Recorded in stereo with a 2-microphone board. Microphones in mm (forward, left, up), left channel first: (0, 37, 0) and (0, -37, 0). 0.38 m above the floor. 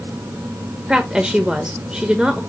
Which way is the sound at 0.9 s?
10° right (ahead or behind).